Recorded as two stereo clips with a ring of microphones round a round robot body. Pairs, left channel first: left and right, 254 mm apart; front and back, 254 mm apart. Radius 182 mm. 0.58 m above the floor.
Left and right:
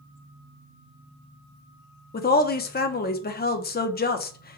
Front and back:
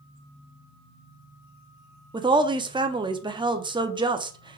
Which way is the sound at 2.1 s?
115° left.